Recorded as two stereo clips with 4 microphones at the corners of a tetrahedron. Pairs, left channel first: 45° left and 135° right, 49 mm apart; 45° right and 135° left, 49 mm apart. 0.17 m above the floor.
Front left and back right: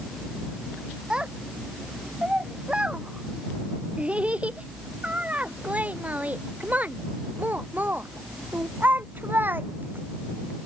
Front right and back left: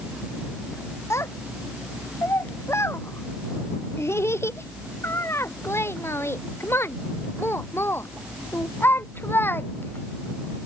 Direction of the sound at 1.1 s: 65° right.